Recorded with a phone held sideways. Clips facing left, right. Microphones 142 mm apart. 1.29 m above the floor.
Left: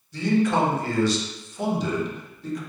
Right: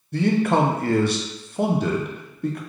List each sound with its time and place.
0.1 s a man speaking: 60° right (ahead or behind), 0.6 m